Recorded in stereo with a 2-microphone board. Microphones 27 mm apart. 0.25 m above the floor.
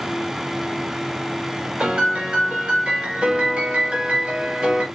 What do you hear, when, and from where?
1.8 s a piano: 50° right (ahead or behind), 2.0 m